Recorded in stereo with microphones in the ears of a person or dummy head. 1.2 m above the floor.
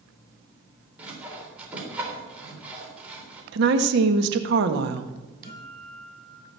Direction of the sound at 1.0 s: 10° right (ahead or behind).